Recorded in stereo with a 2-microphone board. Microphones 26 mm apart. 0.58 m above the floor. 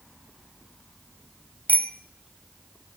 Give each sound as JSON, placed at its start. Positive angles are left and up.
{"t": 1.7, "sound": "a bicycle bell", "side_deg": 80, "distance_m": 2.5}